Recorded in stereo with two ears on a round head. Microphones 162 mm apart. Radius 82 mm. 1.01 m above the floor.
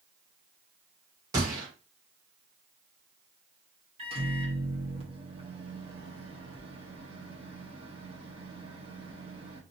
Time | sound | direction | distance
1.3 | a gunshot | 20° right (ahead or behind) | 1.5 m
4.0 | a microwave | 30° right (ahead or behind) | 1.0 m